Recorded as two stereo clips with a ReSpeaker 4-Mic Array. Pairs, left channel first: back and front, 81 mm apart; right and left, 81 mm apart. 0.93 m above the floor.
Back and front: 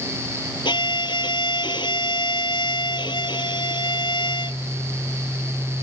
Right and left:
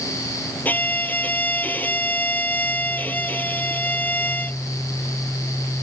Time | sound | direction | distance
0.7 | a violin | 160° right | ?